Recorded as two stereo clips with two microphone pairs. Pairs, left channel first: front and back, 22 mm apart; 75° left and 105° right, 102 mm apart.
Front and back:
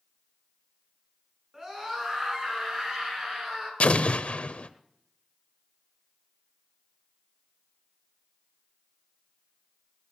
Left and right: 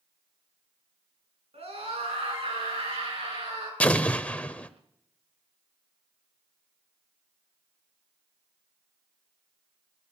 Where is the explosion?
5° right, 0.8 m.